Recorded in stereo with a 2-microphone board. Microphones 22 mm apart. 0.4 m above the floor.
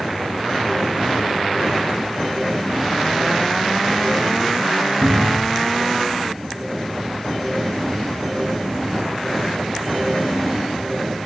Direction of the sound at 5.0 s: 30° right (ahead or behind).